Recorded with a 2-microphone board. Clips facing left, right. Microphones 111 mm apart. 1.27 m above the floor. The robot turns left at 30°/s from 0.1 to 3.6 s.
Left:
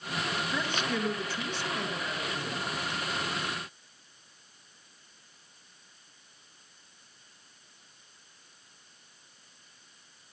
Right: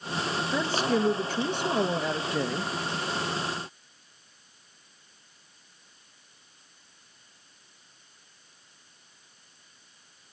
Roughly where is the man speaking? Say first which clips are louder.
Right 8 dB; ahead right.